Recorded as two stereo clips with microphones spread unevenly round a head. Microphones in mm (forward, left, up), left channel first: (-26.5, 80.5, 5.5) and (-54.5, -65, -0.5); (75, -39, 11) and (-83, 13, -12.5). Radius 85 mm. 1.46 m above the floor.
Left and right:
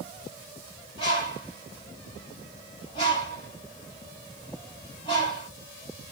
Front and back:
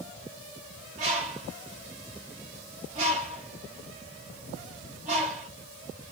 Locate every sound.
1.0 s a bird: 125° left, 1.7 m